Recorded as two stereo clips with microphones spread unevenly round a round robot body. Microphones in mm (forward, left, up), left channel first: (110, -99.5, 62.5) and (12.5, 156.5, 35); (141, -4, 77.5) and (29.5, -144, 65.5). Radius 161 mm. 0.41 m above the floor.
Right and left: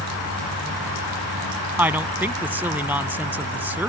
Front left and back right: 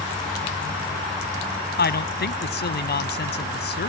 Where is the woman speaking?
30° left.